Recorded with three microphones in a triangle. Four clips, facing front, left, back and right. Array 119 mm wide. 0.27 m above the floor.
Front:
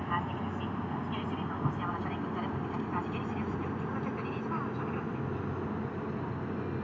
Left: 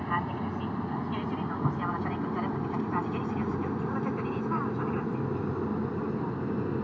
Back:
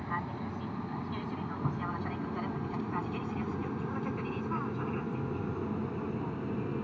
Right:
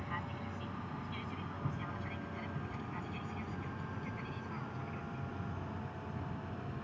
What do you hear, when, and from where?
0.0 s an aircraft: 75° left; by 6.8 s 95° left